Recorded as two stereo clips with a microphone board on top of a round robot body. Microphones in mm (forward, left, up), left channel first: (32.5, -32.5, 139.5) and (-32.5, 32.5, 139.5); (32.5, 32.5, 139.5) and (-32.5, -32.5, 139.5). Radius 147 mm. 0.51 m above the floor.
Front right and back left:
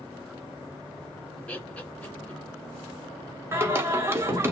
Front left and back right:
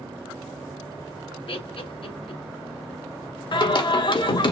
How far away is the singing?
About 1.3 m.